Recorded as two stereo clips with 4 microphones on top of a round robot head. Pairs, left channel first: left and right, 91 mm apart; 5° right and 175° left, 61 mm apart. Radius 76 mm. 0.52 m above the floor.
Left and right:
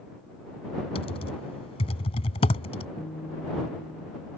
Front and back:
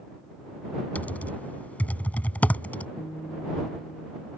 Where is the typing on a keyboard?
60° left.